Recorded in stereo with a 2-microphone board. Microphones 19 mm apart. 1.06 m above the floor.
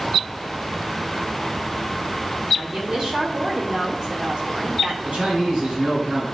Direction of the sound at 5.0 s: 75° right (ahead or behind).